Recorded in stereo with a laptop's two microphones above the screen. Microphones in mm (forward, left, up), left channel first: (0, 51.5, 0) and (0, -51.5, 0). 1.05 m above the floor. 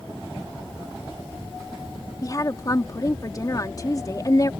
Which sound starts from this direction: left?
A woman speaking, at 2.2 s.